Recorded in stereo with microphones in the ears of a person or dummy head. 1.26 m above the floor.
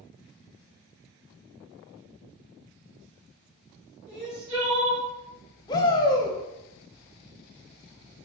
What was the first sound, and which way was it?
Crying, 20° right (ahead or behind).